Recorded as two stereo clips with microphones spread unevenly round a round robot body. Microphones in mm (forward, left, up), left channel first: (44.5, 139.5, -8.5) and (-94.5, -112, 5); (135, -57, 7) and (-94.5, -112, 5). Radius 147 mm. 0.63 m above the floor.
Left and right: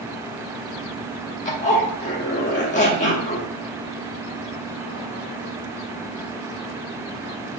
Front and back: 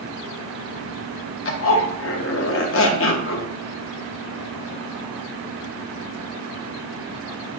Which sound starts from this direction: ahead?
A zipper, at 1.4 s.